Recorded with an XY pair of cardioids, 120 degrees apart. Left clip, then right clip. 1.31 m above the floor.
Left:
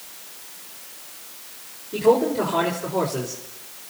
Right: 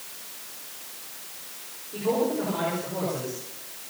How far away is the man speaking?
About 4.5 m.